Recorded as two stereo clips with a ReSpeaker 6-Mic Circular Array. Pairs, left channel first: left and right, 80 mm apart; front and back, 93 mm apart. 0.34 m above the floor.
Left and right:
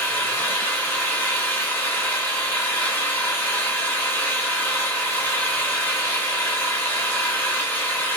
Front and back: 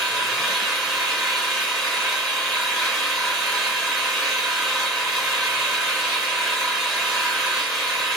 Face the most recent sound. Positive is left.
turn(degrees=85)